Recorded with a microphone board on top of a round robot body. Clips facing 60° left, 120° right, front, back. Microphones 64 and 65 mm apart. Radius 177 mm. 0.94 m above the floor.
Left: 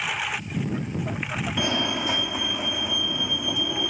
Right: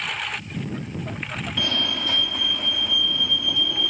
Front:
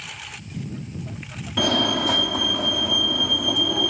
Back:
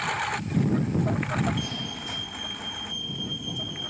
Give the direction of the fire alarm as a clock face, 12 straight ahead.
12 o'clock.